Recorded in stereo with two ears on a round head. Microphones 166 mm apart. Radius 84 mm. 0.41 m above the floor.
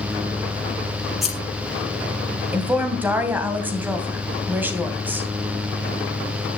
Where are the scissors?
Centre (ahead or behind), 5.5 m.